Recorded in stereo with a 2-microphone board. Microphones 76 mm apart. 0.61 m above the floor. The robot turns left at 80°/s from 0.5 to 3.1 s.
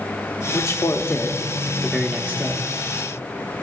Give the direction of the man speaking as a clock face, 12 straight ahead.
9 o'clock.